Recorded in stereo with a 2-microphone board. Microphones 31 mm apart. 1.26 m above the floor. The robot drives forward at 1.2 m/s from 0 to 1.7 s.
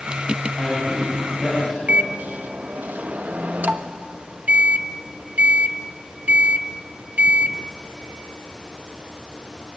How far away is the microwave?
About 1.0 m.